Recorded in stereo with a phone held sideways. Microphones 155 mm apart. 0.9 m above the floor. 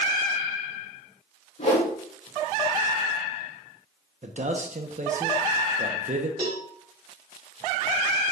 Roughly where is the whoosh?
Left.